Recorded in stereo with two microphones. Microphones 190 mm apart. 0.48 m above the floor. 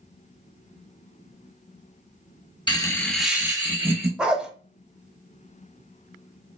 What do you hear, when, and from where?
2.7 s laughter: 25° left (ahead or behind), 0.7 m; by 4.1 s 35° right (ahead or behind), 0.8 m
4.2 s a dog barking: 5° right (ahead or behind), 0.6 m